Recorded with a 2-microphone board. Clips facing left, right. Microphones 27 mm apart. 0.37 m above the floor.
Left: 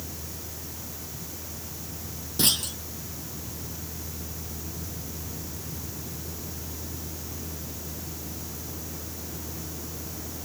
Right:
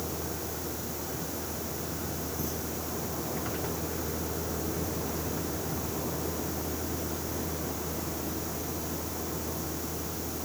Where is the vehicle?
75° right (ahead or behind); by 10.4 s 30° right (ahead or behind).